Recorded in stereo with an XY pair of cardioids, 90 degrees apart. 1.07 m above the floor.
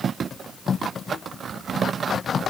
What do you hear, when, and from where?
Only background noise.